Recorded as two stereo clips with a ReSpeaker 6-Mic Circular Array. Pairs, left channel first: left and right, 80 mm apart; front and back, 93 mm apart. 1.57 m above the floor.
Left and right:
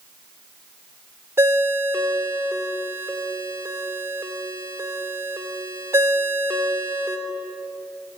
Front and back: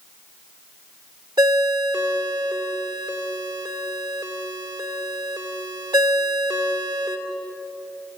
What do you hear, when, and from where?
1.4 s a ringtone: 145° right, 2.5 m